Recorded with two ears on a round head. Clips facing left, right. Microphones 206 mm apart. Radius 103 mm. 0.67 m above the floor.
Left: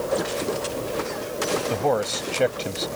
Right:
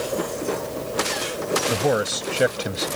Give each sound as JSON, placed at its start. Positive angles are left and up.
{"t": 1.7, "sound": "a man speaking", "side_deg": -15}